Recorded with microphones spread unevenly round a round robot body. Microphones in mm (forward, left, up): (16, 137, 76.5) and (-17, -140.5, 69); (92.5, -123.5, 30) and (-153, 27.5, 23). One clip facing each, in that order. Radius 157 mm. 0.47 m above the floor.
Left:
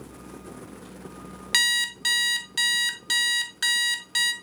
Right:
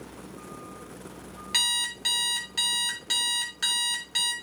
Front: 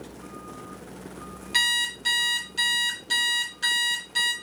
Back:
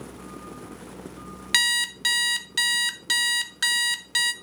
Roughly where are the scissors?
No scissors in this recording.